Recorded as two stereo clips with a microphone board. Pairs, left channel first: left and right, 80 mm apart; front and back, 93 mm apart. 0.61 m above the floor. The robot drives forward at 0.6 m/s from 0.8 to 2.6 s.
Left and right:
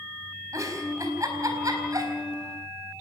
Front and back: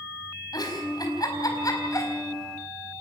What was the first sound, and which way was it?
A giggle, 45° right.